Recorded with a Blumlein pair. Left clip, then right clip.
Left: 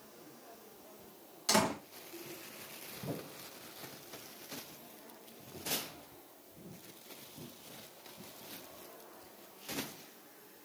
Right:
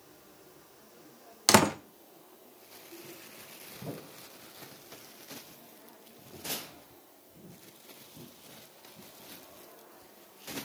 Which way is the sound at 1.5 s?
35° right.